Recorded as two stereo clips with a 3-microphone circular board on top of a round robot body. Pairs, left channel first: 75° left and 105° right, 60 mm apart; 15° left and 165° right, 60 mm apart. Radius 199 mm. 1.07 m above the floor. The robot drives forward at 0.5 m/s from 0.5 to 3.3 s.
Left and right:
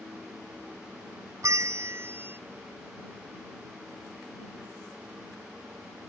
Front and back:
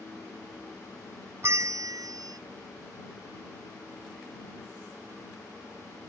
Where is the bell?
125° right; by 2.4 s 155° right.